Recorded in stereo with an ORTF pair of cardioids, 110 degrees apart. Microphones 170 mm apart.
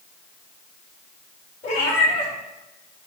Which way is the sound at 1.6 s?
45° left.